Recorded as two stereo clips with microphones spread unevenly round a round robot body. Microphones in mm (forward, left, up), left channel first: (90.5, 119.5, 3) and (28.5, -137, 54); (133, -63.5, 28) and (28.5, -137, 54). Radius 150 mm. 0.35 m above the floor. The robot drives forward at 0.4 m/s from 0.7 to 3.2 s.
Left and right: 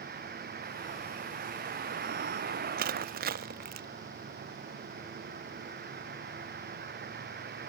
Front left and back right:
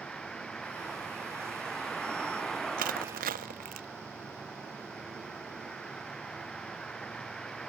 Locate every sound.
0.0 s a vehicle: 50° right
2.8 s crushing: 165° right